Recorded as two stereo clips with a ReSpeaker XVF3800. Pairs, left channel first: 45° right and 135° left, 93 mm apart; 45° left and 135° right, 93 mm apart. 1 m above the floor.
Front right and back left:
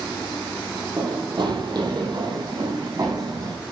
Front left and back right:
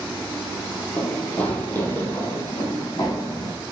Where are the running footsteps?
125° left, 1.7 m; by 3.6 s 95° left, 3 m.